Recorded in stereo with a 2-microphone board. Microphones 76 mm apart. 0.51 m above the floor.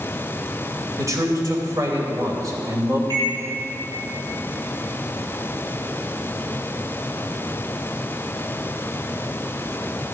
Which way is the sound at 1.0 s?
45° right (ahead or behind).